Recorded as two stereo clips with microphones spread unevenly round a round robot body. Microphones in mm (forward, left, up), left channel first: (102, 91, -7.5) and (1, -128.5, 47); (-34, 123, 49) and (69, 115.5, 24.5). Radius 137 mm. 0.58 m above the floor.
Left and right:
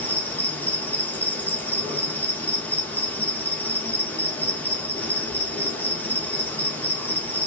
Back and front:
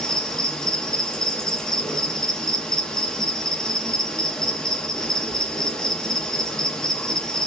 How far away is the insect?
About 0.9 m.